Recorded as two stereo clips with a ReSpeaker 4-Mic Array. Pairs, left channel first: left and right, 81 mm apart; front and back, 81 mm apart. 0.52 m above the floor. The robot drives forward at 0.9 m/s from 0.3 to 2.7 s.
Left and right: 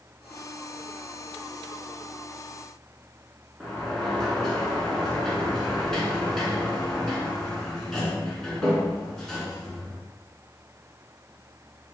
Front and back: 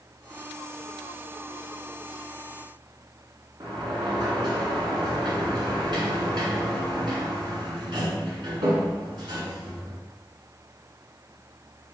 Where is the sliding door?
175° left, 1.3 m.